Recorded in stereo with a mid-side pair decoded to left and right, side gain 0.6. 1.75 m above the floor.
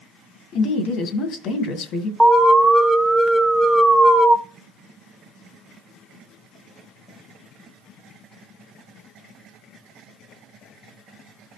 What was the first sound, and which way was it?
A woman speaking, 60° left.